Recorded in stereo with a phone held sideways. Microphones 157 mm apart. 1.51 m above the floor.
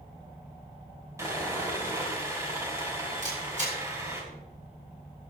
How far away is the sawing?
About 3 m.